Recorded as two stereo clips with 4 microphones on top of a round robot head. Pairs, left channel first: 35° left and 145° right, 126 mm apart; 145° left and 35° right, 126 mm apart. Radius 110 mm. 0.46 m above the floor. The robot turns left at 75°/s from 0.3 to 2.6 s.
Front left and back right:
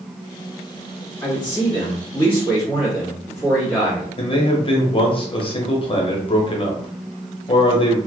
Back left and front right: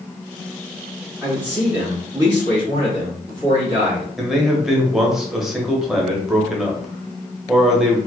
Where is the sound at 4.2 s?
50° left, 0.9 m.